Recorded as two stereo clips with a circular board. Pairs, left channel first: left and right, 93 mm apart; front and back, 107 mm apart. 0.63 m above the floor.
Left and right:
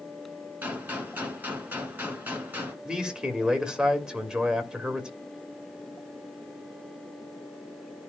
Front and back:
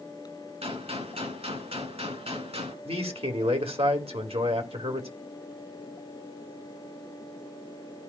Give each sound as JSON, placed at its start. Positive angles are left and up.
{"t": 0.6, "sound": "a gunshot", "azimuth_deg": -160, "distance_m": 3.0}
{"t": 2.9, "sound": "a man speaking", "azimuth_deg": -170, "distance_m": 2.0}